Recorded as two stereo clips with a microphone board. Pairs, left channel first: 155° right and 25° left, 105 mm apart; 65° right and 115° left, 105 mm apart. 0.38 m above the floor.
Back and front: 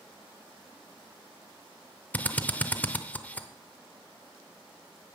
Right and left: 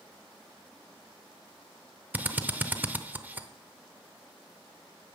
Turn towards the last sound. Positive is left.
turn(degrees=155)